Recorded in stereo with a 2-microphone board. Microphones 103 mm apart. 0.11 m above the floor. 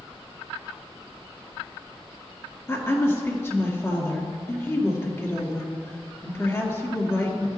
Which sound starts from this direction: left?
A woman speaking, at 2.7 s.